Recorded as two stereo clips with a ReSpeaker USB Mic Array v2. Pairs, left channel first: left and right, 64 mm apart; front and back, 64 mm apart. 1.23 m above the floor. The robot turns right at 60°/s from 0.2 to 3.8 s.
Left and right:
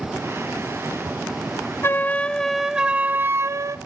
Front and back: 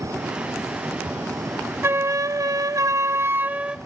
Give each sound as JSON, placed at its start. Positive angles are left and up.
{"t": 1.8, "sound": "a flute", "azimuth_deg": 135, "distance_m": 0.6}